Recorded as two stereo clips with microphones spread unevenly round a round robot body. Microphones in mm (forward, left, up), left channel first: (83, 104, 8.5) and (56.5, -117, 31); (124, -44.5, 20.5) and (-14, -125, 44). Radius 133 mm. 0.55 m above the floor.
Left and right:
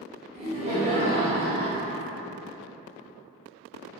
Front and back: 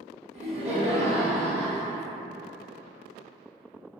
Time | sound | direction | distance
0.3 | laughter | 145° right | 0.9 m